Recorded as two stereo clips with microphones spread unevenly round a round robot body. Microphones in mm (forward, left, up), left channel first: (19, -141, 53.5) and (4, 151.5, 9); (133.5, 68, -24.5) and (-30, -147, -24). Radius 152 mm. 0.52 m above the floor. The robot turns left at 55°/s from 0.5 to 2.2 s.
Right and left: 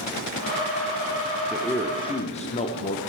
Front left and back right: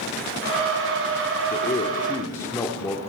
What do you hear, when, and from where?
1.5 s a man speaking: 20° left, 0.8 m; by 3.0 s 20° right, 0.8 m